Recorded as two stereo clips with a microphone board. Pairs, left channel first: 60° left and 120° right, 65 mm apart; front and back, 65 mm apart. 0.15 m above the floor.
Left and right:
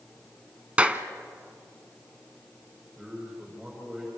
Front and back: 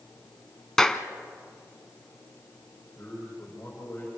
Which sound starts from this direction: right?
A clap, at 0.8 s.